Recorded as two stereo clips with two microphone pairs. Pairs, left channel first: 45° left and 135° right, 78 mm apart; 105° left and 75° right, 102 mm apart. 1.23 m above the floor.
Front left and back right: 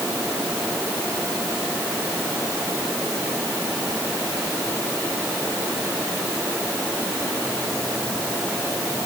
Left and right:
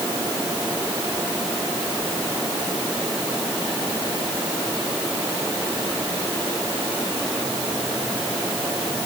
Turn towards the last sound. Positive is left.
No sound to turn to.